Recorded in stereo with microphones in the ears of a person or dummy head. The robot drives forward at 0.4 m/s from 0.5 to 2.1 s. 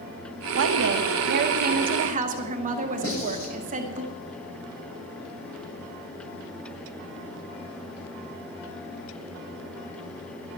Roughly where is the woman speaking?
Right.